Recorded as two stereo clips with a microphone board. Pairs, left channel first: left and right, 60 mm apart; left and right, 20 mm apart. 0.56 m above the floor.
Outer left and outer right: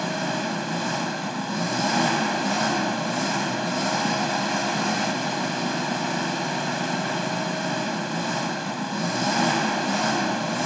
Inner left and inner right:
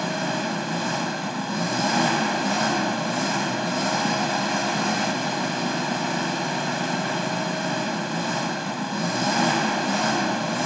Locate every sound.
0.0 s an engine running: centre (ahead or behind), 1.0 m